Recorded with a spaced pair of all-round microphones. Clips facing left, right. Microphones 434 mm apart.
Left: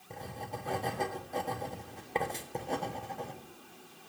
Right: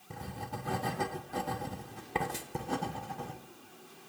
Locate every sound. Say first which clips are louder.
0.1 s writing: even; 25° right (ahead or behind), 0.6 m